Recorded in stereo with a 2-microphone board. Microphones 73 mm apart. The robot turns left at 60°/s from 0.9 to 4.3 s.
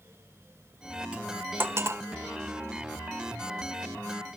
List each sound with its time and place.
1.1 s cutlery clinking: 15° right (ahead or behind), 0.5 m; by 2.0 s 40° right (ahead or behind), 0.5 m